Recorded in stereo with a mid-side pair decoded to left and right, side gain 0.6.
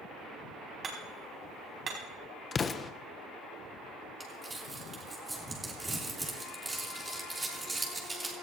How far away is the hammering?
About 4.5 m.